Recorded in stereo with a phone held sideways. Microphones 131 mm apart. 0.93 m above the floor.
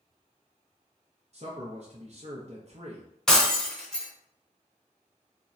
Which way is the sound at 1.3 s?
50° right (ahead or behind).